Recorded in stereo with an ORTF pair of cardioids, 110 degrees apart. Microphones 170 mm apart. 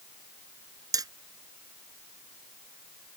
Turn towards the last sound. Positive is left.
turn(degrees=-20)